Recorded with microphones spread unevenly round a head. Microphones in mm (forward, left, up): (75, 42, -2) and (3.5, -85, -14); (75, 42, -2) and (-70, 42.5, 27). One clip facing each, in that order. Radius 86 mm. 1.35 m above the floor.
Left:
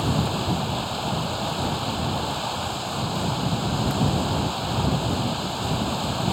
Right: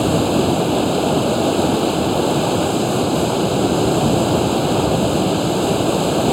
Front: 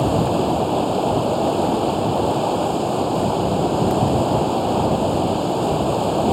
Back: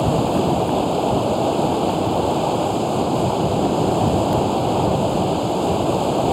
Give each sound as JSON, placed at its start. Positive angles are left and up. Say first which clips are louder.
{"t": 0.0, "sound": "running water", "louder": "right 10 dB, even", "azimuth_deg": -95}